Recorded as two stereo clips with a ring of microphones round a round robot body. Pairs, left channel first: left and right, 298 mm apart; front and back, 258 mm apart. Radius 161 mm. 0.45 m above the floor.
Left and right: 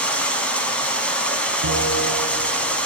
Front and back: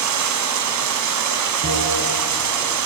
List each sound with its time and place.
0.0 s running water: 175° left, 2.5 m
1.6 s a bell: 130° right, 5.5 m